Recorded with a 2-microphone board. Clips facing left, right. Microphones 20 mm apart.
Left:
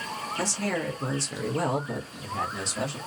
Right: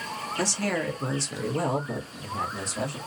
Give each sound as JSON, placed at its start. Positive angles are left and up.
{"t": 0.4, "sound": "a man speaking", "side_deg": -40, "distance_m": 1.0}